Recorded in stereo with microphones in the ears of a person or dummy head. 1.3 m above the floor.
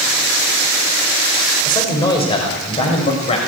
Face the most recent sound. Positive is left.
turn(degrees=35)  # may be behind; listen again after turning